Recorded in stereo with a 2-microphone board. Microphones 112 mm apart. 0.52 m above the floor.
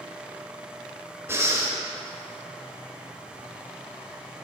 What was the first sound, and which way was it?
Breathing, 25° right (ahead or behind).